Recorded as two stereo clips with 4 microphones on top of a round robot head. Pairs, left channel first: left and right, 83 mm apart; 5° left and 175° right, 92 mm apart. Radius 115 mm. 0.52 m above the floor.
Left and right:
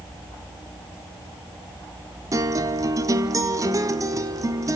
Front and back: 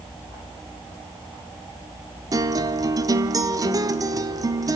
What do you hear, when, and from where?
2.3 s a guitar: 130° right, 1.0 m